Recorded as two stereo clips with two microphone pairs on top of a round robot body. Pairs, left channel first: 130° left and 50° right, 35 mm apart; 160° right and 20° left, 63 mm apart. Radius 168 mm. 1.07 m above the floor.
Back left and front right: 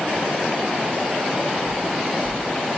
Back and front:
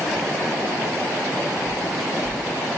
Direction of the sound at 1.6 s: 5° left.